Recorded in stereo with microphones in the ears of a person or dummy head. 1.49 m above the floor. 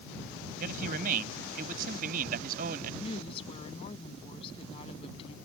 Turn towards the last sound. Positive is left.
turn(degrees=35)  # may be behind; listen again after turning